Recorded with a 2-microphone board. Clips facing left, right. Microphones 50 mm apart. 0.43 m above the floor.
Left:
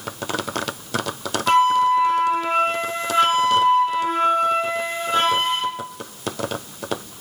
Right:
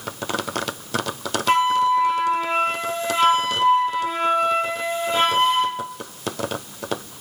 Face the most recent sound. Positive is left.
turn(degrees=50)  # may be behind; listen again after turning